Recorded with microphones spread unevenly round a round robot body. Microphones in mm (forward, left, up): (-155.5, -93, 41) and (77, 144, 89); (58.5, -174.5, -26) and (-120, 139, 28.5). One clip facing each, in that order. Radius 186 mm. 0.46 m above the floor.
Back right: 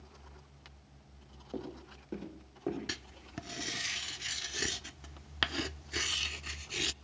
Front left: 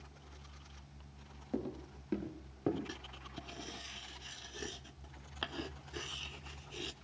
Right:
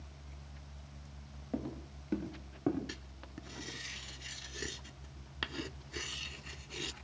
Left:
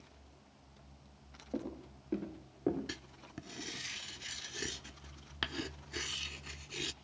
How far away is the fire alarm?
No fire alarm in this recording.